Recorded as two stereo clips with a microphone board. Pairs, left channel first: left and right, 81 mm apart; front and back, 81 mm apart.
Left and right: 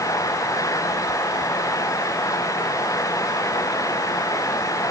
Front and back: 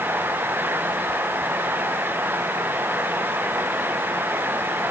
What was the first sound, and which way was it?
Only background noise.